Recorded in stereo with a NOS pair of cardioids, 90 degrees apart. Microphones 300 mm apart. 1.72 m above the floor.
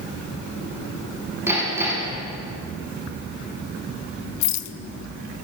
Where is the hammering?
10° right, 5 m.